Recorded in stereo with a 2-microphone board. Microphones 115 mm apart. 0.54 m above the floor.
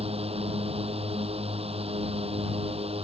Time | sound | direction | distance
0.0 | a drone | 60° right (ahead or behind) | ?